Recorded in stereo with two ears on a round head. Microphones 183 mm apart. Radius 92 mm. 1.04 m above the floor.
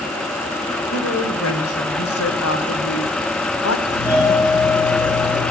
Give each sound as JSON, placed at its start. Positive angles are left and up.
{"t": 0.9, "sound": "a woman speaking", "side_deg": 80, "distance_m": 4.0}
{"t": 3.9, "sound": "a doorbell", "side_deg": 20, "distance_m": 8.0}